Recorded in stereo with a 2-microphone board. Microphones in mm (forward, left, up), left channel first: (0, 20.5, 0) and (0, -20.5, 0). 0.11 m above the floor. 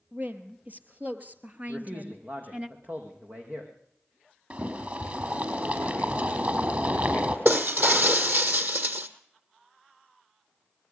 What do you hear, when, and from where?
0.1 s a woman speaking: 45° right (ahead or behind), 3 m; by 2.7 s 30° right (ahead or behind), 1.6 m
1.7 s a man speaking: 45° right (ahead or behind), 5 m
4.5 s boiling: 45° right (ahead or behind), 3.5 m
7.5 s breaking glass: 50° right (ahead or behind), 1.7 m